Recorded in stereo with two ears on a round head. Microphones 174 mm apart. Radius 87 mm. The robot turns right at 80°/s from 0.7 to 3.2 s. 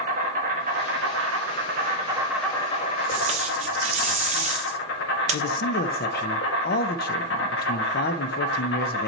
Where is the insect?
135° right, 1.4 m; by 9.1 s 65° left, 1.4 m.